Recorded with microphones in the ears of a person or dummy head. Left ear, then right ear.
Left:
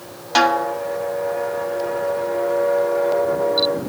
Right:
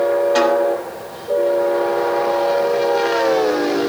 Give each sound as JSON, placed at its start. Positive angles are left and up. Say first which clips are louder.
{"t": 0.3, "sound": "a snare drum", "louder": "right 2 dB", "side_deg": 45, "distance_m": 1.9}